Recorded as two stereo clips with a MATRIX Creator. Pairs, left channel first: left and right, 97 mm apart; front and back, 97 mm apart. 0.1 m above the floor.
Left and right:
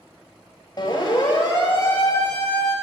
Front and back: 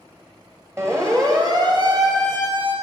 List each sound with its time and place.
0.8 s a siren: 125° left, 2.5 m; by 2.8 s 160° left, 3 m